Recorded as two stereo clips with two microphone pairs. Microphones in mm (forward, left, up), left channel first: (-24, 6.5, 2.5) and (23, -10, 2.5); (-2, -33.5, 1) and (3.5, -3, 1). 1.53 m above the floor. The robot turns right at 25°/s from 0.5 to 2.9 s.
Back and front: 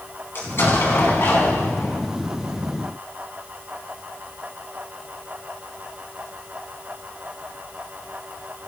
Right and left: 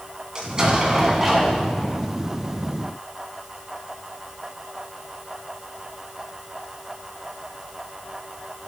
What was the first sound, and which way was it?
An explosion, 140° left.